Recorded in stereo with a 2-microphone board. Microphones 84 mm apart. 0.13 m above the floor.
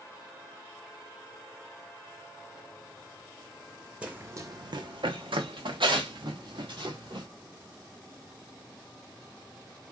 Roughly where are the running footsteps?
Centre.